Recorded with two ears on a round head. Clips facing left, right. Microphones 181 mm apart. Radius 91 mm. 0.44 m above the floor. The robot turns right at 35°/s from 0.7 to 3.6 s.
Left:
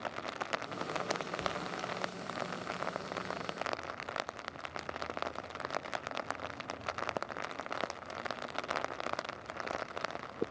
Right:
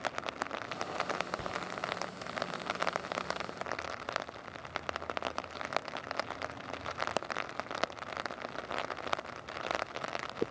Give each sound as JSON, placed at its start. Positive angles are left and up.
{"t": 1.4, "sound": "whispering", "side_deg": -35, "distance_m": 3.0}